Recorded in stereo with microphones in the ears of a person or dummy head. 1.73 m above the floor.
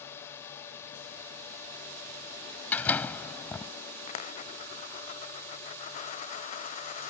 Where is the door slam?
20° left (ahead or behind).